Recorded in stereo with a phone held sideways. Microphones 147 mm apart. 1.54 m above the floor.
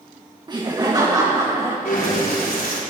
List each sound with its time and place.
0.5 s laughter: 30° right (ahead or behind), 1.2 m; by 1.8 s 25° right (ahead or behind), 1.8 m
1.9 s breathing: 85° left, 4.5 m